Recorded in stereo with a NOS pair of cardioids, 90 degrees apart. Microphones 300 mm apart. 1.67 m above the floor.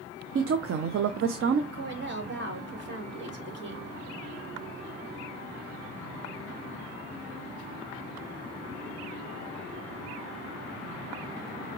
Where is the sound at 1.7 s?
40° right, 2.5 m.